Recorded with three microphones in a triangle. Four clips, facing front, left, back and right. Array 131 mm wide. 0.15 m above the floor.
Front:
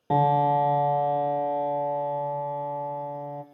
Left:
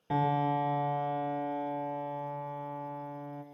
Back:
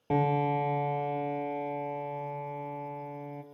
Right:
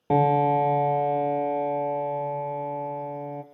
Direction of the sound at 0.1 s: 75° right.